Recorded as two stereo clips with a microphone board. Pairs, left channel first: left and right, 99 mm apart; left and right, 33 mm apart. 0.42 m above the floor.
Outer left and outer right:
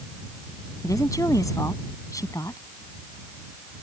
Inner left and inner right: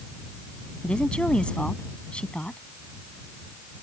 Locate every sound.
0.8 s a woman speaking: 35° left (ahead or behind)